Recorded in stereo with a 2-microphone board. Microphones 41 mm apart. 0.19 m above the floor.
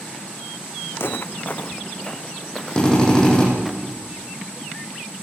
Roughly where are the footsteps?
Left.